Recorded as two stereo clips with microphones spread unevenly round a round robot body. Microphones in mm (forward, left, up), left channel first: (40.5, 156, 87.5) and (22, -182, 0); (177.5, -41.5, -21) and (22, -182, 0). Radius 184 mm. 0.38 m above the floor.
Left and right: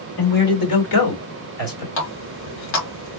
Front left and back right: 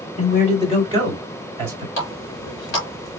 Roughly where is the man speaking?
Left.